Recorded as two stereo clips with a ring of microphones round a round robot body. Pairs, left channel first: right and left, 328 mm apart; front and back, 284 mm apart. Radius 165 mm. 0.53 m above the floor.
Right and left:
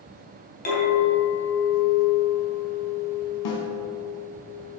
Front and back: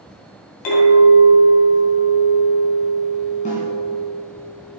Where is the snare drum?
70° right, 1.7 m.